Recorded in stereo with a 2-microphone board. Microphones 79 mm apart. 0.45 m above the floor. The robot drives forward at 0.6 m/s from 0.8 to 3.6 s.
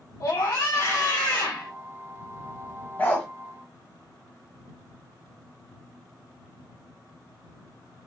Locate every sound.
0.2 s a scream: 55° left (ahead or behind), 2 m
3.0 s a dog barking: 25° left (ahead or behind), 1.5 m